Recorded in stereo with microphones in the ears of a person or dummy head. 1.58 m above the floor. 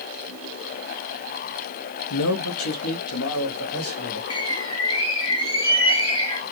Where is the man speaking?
65° left (ahead or behind), 0.7 m; by 4.2 s 90° left, 3 m.